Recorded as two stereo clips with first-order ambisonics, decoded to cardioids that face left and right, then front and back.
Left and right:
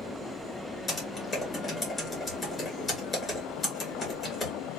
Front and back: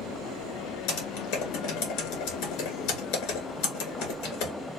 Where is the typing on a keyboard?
20° left, 1.9 m.